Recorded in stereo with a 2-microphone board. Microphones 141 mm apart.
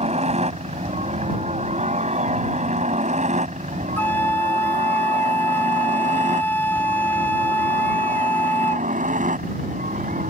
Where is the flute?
15° left (ahead or behind).